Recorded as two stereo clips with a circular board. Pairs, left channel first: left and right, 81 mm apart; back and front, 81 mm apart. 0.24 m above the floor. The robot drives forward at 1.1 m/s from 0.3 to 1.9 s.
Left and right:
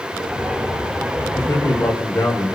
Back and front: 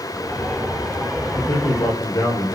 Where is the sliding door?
No sliding door in this recording.